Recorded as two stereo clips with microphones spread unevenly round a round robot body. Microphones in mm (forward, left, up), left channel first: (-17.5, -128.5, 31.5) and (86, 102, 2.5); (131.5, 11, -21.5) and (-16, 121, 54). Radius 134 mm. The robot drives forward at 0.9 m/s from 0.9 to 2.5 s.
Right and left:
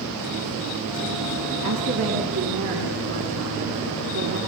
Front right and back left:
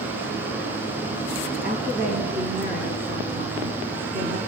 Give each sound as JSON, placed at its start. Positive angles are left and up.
{"t": 1.6, "sound": "a woman speaking", "azimuth_deg": 100, "distance_m": 5.0}